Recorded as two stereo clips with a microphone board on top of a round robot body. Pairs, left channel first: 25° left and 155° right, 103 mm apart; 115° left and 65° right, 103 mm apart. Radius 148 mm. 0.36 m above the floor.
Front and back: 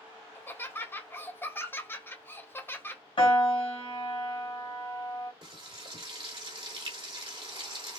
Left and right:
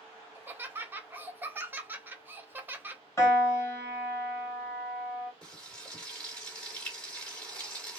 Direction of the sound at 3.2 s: 50° left.